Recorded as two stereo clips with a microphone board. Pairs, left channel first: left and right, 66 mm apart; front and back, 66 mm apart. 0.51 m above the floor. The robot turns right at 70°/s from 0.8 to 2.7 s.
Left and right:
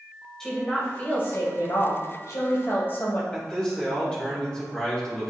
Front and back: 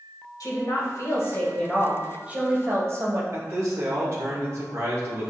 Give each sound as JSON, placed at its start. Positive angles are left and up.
{"t": 0.4, "sound": "a woman speaking", "azimuth_deg": 10, "distance_m": 1.9}
{"t": 3.3, "sound": "a man speaking", "azimuth_deg": 160, "distance_m": 1.9}